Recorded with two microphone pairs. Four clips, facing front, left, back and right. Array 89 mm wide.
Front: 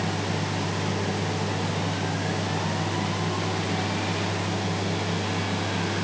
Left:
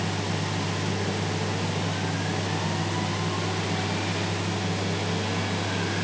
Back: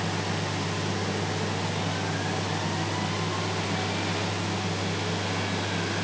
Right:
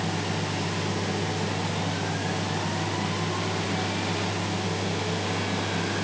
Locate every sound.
Only background noise.